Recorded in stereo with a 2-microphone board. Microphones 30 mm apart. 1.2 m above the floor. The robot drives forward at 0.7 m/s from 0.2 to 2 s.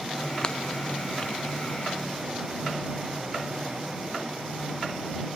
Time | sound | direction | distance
0.4 | breaking glass | 25° left (ahead or behind) | ?